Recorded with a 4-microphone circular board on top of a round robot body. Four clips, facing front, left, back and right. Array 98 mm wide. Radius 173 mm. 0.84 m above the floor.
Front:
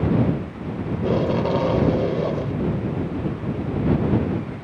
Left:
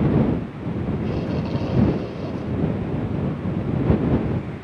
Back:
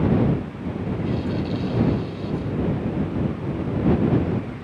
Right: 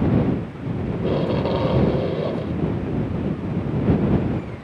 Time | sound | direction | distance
0.9 | tape being pulled | 30° right | ?